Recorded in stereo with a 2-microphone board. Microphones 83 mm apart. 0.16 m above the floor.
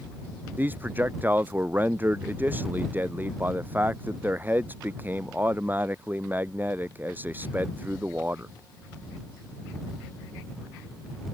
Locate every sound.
0.6 s a man speaking: 25° right (ahead or behind)